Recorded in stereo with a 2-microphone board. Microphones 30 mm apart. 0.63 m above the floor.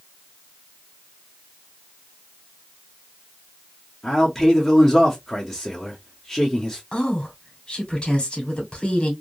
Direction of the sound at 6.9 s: 45° left (ahead or behind).